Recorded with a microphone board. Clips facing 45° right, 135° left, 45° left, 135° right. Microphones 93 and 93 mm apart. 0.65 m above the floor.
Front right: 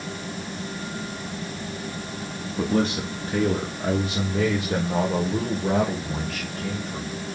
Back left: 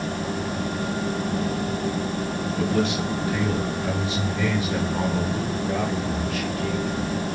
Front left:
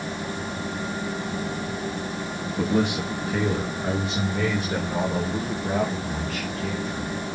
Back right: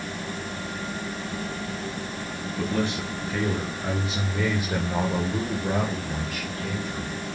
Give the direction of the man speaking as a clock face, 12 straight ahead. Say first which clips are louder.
Front right 1 dB, front left 4 dB; 12 o'clock.